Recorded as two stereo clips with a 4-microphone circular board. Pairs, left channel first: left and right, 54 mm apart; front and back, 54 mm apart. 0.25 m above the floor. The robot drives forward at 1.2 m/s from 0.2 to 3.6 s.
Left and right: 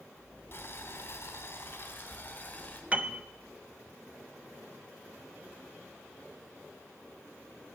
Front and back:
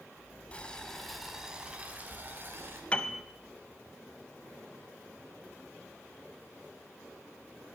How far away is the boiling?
About 1.9 m.